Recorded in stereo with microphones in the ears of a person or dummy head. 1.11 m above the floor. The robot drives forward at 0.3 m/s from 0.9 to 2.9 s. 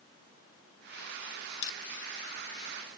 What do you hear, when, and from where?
1.6 s crushing: 55° left (ahead or behind), 0.9 m